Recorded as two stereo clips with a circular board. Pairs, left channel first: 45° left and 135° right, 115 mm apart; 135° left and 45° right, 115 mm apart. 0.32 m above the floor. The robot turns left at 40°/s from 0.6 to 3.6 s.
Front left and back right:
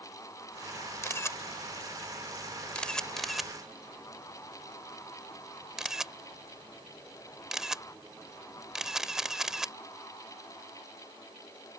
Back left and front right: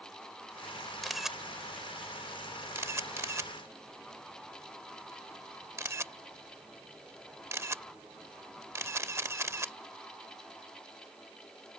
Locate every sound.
1.0 s a camera shutter: 50° left; by 9.7 s 55° right